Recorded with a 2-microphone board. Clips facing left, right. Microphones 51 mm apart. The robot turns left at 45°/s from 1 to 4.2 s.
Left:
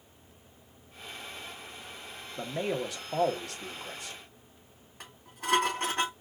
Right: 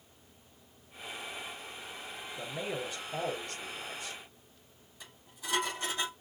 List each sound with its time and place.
2.4 s a man speaking: 140° left, 1.3 m; by 4.2 s 60° left, 1.3 m
5.0 s dishes clattering: 60° left (ahead or behind), 3 m